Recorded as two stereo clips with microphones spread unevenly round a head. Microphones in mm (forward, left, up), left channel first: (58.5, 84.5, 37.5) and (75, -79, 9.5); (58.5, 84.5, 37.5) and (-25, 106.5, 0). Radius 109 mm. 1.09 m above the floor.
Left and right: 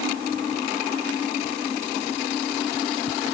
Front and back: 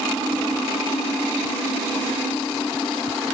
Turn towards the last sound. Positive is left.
No sound to turn to.